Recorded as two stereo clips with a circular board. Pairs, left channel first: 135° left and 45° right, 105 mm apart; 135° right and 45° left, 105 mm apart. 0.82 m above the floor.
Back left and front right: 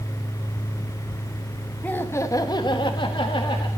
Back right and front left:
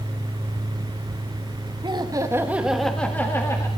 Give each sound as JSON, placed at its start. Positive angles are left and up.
{"t": 1.8, "sound": "laughter", "azimuth_deg": 65, "distance_m": 1.4}